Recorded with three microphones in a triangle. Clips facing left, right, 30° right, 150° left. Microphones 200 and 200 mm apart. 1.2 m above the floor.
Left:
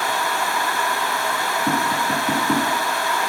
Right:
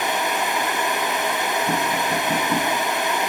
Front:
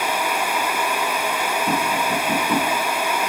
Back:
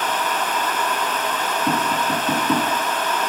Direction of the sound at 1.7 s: 100° left.